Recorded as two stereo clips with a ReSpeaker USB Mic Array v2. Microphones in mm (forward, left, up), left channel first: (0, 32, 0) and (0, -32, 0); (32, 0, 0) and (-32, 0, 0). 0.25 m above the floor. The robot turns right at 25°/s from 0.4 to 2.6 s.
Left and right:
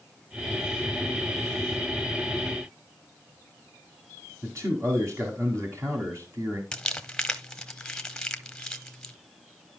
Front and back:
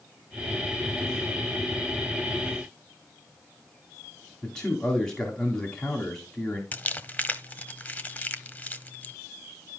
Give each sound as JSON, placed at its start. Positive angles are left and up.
{"t": 4.4, "sound": "a man speaking", "azimuth_deg": -75, "distance_m": 2.0}
{"t": 6.7, "sound": "crumpling", "azimuth_deg": 25, "distance_m": 0.9}